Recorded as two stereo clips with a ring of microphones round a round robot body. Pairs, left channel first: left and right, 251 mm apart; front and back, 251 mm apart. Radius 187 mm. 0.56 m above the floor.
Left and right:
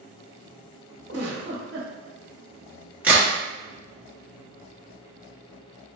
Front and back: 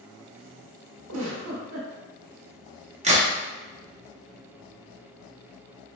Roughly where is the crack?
Behind.